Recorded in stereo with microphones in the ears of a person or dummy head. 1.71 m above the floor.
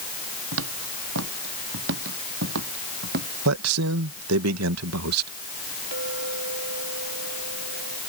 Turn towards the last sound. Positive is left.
turn(degrees=-60)  # may be behind; listen again after turning